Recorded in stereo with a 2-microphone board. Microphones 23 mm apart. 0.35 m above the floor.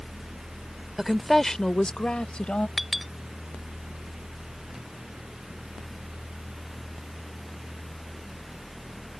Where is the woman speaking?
10° right (ahead or behind); by 2.7 s 60° left (ahead or behind).